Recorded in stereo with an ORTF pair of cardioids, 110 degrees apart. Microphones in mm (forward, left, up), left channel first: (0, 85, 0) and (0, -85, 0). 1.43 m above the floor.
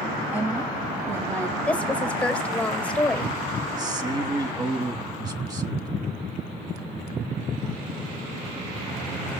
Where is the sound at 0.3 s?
15° right, 1.9 m; by 1.6 s 20° right, 3 m.